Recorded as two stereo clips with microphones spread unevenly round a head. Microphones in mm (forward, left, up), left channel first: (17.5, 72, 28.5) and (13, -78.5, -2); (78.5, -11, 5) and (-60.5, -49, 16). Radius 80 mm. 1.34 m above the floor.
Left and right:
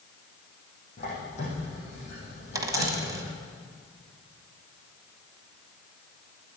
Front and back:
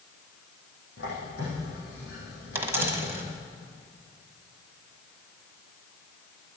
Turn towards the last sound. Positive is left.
turn(degrees=-160)